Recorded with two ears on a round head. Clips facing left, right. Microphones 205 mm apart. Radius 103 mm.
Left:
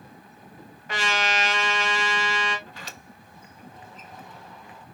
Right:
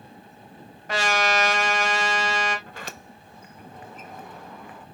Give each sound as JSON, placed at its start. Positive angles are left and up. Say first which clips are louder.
{"t": 0.9, "sound": "a trumpet", "louder": "right 4 dB", "side_deg": -35, "distance_m": 1.4}
{"t": 2.7, "sound": "a sliding door", "louder": "right 4 dB", "side_deg": -45, "distance_m": 0.6}